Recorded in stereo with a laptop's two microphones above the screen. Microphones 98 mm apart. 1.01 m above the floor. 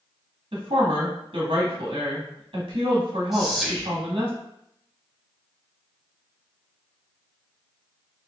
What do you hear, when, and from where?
0.5 s a woman speaking: 70° right (ahead or behind), 1.9 m
3.3 s whispering: 5° right (ahead or behind), 1.2 m